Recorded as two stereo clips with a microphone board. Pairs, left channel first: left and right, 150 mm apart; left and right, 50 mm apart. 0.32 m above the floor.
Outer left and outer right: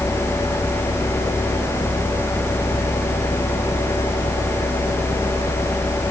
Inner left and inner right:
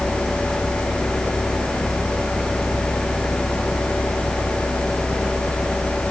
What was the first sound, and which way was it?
Only background noise.